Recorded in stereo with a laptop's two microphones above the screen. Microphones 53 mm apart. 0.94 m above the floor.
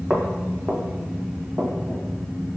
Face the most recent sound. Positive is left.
turn(degrees=-40)  # may be behind; listen again after turning